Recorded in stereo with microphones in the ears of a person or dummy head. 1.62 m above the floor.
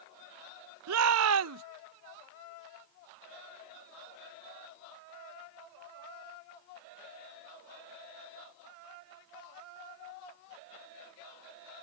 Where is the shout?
75° right (ahead or behind).